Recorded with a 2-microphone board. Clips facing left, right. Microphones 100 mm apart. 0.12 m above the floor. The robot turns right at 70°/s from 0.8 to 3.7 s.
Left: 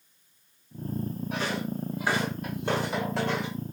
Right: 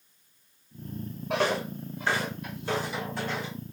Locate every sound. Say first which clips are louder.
1.3 s footsteps: right 6 dB; 70° right (ahead or behind), 0.9 m; by 3.5 s 50° left (ahead or behind), 3 m